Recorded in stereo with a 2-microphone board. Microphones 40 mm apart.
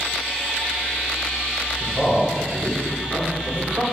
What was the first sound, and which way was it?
A man speaking, centre (ahead or behind).